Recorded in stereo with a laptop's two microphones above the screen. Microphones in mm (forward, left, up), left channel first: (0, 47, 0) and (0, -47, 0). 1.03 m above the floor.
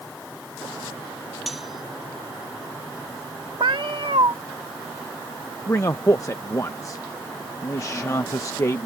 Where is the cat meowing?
65° right (ahead or behind).